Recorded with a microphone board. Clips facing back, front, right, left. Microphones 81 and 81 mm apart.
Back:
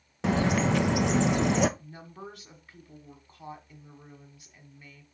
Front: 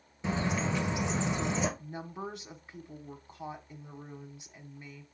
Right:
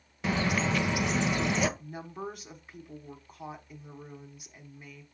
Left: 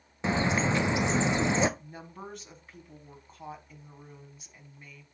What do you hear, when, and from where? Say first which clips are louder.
0.2 s a bird: back 6 dB, left 2 dB; 155° left, 0.6 m
1.8 s a woman speaking: front 4 dB, right 5 dB; 25° right, 1.2 m